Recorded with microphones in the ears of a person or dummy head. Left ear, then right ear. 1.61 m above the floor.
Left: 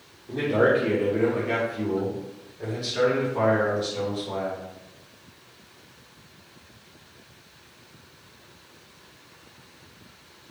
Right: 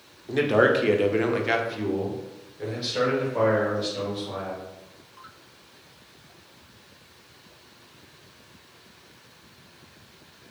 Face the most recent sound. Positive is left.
turn(degrees=0)  # may be behind; listen again after turning